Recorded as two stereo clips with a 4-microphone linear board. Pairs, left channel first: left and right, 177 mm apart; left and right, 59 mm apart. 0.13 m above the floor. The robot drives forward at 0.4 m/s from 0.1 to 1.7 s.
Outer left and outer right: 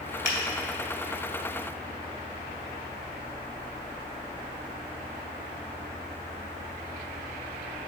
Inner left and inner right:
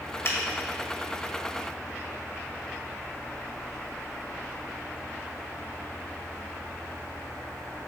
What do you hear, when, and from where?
0.2 s a finger snap: 45° left (ahead or behind), 2.0 m